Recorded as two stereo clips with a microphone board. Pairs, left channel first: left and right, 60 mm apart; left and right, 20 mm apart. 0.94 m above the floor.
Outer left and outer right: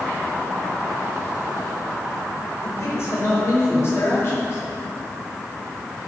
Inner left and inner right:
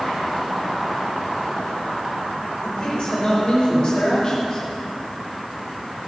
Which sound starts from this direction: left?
A man speaking, at 2.6 s.